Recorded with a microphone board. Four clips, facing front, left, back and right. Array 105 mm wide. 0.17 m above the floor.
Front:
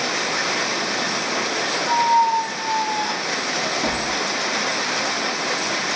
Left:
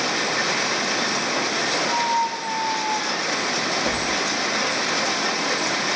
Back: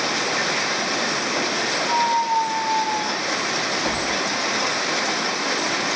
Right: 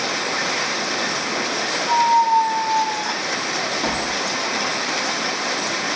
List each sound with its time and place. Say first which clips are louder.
1.9 s a squeak: right 9 dB, front 4 dB; 55° right, 2.5 m